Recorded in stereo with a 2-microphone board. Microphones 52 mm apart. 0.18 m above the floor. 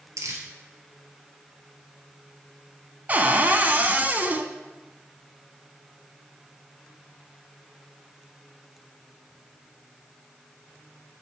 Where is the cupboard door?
35° right (ahead or behind), 0.5 m.